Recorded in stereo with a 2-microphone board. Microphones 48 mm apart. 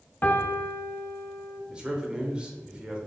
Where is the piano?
40° left (ahead or behind), 0.5 m.